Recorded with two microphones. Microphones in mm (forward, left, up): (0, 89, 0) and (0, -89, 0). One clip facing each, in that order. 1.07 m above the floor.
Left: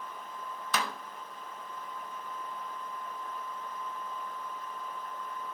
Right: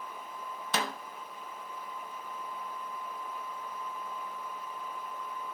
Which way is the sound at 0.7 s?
30° right (ahead or behind).